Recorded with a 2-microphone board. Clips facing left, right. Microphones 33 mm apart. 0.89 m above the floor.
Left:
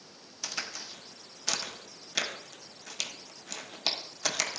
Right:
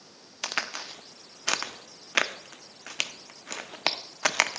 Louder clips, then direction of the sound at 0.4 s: Right 6 dB; 60° right (ahead or behind).